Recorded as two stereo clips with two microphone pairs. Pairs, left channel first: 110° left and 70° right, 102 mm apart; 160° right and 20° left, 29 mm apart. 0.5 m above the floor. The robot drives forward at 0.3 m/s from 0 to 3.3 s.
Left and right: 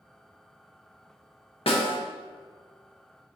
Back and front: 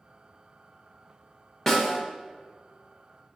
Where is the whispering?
No whispering in this recording.